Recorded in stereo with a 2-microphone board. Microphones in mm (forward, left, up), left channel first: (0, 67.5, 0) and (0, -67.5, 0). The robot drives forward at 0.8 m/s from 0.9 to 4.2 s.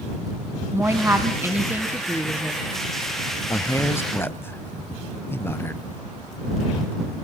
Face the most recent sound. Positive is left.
turn(degrees=15)  # may be behind; listen again after turning